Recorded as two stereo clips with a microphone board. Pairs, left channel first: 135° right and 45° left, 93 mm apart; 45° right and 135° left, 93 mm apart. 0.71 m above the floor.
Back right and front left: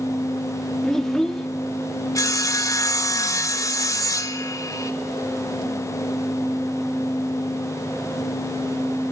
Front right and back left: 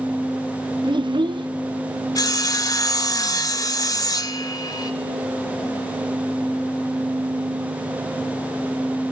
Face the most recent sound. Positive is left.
turn(degrees=-90)